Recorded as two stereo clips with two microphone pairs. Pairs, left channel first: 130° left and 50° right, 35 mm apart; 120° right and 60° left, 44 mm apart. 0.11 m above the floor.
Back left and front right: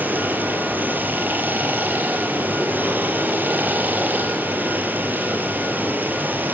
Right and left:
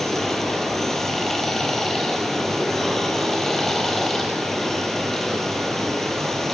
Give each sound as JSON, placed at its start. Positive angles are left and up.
{"t": 0.0, "sound": "running water", "azimuth_deg": -40, "distance_m": 2.0}